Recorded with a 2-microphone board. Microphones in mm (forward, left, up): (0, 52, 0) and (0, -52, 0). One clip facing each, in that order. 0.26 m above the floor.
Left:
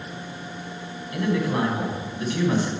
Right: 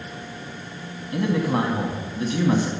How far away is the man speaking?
About 1.5 m.